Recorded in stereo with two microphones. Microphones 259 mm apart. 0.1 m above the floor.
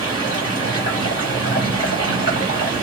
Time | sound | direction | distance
0.0 | running water | 50° left (ahead or behind) | 1.7 m